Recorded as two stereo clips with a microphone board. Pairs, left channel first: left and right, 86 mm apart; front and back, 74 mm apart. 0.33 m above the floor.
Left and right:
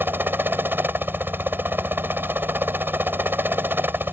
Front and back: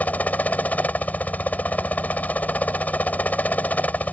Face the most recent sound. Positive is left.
turn(degrees=-50)